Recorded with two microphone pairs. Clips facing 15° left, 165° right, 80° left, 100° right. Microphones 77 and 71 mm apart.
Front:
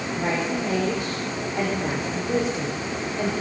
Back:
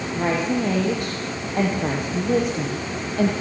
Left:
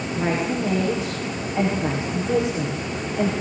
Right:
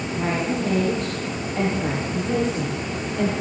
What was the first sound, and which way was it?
A woman speaking, 165° left.